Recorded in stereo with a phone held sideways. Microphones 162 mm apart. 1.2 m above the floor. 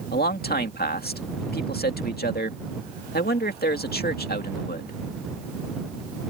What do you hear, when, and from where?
0.1 s a man speaking: 75° left (ahead or behind)